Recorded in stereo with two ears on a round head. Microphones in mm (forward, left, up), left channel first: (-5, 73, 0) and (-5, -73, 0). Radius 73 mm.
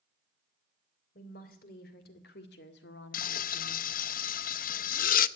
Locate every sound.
1.1 s a woman speaking: 55° left (ahead or behind), 3 m; by 3.9 s 70° left (ahead or behind), 1.6 m
3.1 s frying: 55° left (ahead or behind), 0.5 m